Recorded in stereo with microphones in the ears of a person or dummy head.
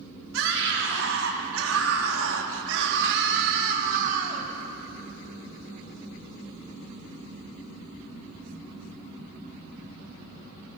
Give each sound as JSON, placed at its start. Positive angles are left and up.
{"t": 0.3, "sound": "a scream", "side_deg": -65, "distance_m": 4.0}